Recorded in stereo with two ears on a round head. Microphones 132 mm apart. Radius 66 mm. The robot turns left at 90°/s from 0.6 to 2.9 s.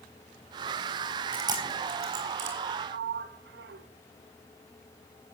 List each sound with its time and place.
1.3 s chewing: 15° right (ahead or behind), 4.5 m; by 2.6 s 50° right (ahead or behind), 4.5 m
2.9 s a sliding door: 90° right, 0.8 m